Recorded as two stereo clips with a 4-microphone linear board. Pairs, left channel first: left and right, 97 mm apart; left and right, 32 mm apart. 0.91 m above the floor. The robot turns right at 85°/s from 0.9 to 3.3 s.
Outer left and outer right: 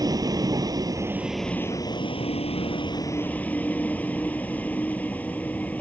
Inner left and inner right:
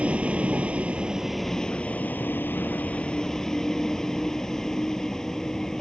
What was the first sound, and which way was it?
A vehicle, 40° right.